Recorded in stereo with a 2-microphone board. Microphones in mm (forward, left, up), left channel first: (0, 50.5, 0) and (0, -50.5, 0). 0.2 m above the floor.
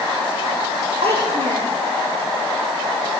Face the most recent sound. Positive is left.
turn(degrees=-85)